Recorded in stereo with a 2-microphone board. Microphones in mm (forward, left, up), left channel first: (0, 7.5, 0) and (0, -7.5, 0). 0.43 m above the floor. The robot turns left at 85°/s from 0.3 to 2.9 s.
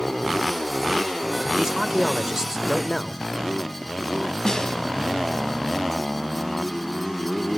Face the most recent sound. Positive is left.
turn(degrees=45)  # may be behind; listen again after turning